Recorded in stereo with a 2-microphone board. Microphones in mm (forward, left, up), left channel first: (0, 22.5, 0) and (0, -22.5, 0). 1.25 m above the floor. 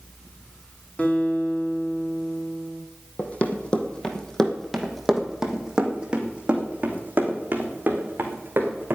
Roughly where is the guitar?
Left.